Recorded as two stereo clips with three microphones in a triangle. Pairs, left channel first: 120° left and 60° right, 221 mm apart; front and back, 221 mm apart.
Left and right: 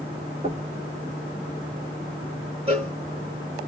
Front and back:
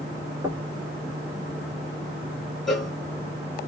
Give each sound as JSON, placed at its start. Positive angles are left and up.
{"t": 0.4, "sound": "knocking", "azimuth_deg": -110, "distance_m": 1.4}
{"t": 2.7, "sound": "a cowbell", "azimuth_deg": -90, "distance_m": 1.5}